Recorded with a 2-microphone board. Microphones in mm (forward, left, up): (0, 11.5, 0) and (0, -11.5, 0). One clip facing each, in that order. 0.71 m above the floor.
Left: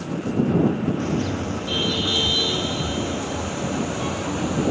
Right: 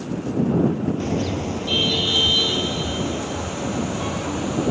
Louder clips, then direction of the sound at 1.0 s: Right 1 dB; 20° right (ahead or behind).